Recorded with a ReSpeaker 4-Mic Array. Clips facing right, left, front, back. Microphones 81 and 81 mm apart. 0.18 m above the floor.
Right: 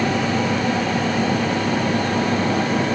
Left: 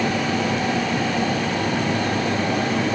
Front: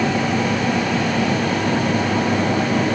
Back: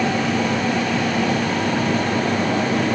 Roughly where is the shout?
No shout in this recording.